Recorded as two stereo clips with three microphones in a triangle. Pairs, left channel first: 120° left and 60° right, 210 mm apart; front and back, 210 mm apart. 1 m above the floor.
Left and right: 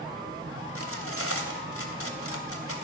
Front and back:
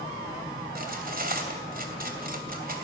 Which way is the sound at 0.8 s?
130° left.